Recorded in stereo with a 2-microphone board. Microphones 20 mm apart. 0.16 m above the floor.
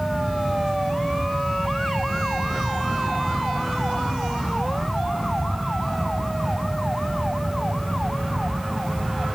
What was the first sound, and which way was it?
Only background noise.